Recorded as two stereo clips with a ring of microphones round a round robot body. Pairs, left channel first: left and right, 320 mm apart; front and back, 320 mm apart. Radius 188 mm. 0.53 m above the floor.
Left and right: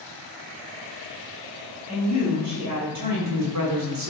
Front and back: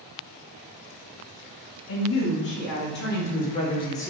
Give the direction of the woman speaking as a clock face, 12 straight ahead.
2 o'clock.